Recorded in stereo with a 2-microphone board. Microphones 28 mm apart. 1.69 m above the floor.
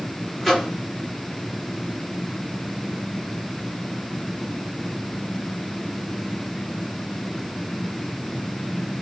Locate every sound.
0.4 s a microwave: centre (ahead or behind), 2.5 m